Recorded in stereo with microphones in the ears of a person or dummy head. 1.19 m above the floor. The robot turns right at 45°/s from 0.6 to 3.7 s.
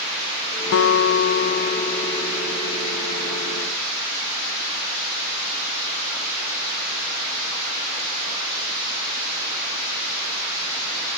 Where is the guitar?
105° left, 0.6 m; by 2.9 s 160° right, 0.6 m.